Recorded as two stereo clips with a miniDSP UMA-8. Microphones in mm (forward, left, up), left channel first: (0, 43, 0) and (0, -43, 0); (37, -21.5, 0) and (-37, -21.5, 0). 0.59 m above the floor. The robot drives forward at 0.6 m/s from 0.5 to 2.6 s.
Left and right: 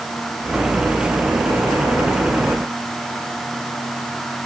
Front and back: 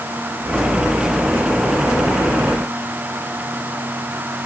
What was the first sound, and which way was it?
Only background noise.